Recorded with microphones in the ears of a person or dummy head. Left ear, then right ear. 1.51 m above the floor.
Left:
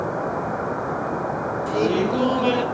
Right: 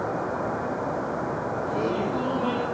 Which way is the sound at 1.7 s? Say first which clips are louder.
Left 7 dB; 65° left (ahead or behind).